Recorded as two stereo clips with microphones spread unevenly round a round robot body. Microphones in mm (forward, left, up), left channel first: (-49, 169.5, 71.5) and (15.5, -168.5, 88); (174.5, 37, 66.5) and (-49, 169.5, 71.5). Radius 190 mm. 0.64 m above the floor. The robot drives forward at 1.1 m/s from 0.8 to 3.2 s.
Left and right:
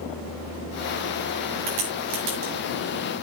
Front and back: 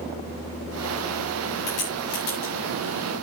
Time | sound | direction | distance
1.7 | a crack | 75° right | 6.5 m